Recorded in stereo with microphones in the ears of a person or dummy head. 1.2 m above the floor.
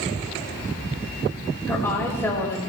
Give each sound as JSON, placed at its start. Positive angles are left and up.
{"t": 1.7, "sound": "a woman speaking", "side_deg": 10, "distance_m": 5.0}